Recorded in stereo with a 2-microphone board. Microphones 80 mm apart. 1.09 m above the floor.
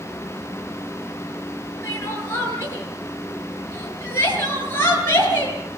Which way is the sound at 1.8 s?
30° left (ahead or behind).